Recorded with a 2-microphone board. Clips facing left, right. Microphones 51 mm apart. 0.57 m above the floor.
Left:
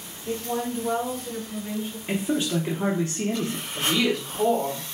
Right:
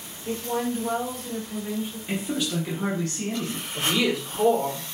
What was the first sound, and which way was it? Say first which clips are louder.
A woman speaking: right 1 dB; 25° right (ahead or behind).